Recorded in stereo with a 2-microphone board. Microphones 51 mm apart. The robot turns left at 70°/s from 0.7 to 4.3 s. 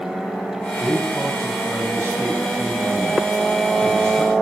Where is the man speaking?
15° right, 4 m; by 4.3 s 95° left, 4 m.